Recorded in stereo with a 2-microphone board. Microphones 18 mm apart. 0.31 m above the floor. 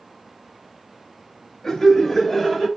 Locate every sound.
1.6 s laughter: 20° left (ahead or behind), 1.1 m; by 2.7 s 10° right (ahead or behind), 1.2 m